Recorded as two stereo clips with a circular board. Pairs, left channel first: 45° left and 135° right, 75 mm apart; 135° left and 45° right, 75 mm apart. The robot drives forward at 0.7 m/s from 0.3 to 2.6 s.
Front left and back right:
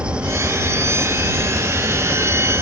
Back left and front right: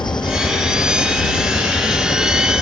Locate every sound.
0.0 s an engine running: 150° left